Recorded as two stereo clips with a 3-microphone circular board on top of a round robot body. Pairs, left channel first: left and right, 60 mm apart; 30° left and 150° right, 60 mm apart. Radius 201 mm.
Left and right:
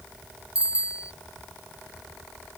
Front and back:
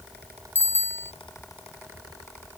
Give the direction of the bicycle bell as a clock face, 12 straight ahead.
1 o'clock.